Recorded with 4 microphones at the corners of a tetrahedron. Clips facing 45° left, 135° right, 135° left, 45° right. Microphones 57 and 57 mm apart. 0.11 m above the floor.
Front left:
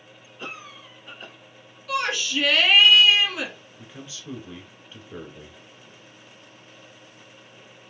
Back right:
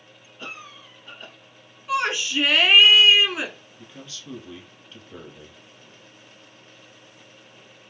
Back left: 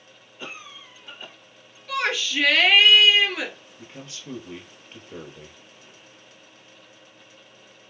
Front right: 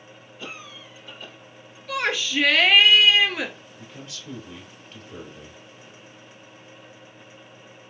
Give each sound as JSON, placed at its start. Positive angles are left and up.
{"t": 0.4, "sound": "a cough", "azimuth_deg": 115, "distance_m": 1.4}
{"t": 1.9, "sound": "a shout", "azimuth_deg": -135, "distance_m": 1.1}
{"t": 3.8, "sound": "a man speaking", "azimuth_deg": 100, "distance_m": 1.4}